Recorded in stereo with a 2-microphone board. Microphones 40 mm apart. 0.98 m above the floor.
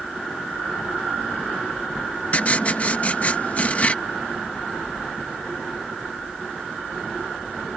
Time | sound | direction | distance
2.3 | writing | 35° left (ahead or behind) | ?